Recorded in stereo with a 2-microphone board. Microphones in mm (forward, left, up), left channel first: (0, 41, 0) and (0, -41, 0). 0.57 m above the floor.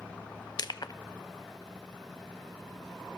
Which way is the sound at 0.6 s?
55° left (ahead or behind).